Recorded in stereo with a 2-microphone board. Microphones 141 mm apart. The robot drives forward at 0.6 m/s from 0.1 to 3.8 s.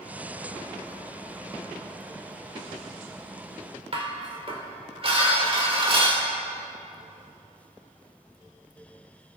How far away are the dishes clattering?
About 2.5 m.